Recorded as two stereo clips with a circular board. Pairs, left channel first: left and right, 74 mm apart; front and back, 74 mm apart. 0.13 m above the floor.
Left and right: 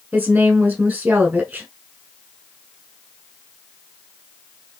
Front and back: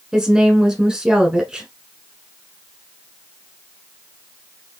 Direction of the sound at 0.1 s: 115° right.